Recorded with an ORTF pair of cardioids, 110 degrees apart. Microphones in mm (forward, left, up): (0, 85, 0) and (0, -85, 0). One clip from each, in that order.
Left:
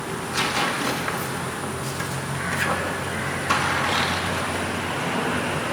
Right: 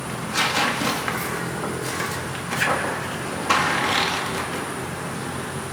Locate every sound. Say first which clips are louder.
0.1 s tearing paper: right 2 dB; 20° right, 2 m